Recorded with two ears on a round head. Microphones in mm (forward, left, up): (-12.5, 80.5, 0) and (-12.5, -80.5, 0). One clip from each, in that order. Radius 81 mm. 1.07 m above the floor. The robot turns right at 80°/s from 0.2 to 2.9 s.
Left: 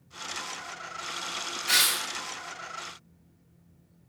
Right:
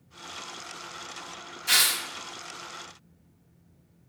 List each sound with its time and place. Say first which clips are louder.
1.7 s tearing paper: right 1 dB; 35° right (ahead or behind), 0.7 m; by 2.0 s 30° right (ahead or behind), 0.7 m